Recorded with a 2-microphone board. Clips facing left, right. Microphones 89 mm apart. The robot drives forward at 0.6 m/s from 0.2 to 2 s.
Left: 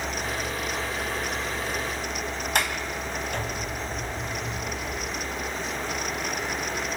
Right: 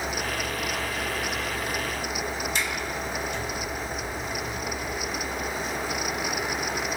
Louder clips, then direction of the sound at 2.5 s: Left 2 dB; 60° left (ahead or behind).